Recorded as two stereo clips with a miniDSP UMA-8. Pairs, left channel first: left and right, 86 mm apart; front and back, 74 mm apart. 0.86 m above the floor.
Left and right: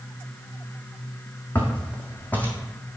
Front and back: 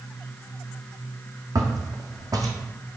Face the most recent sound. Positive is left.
turn(degrees=155)